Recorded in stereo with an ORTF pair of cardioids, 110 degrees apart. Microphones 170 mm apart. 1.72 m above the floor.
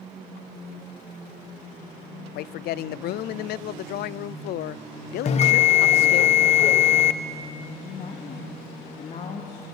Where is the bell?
40° left, 1.1 m.